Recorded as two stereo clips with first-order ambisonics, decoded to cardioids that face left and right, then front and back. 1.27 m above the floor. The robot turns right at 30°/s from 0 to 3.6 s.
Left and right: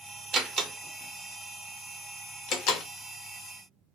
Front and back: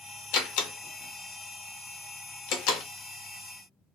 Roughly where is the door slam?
Ahead right.